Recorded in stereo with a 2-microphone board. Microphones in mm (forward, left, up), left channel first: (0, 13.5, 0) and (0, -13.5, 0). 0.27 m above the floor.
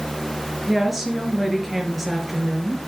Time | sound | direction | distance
0.7 | a woman speaking | 5° right (ahead or behind) | 4.5 m